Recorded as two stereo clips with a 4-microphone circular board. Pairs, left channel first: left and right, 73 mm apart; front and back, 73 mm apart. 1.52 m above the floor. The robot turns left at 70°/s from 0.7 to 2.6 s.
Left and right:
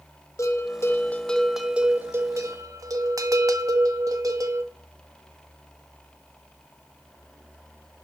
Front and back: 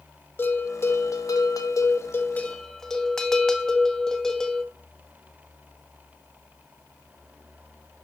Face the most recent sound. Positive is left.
turn(degrees=-80)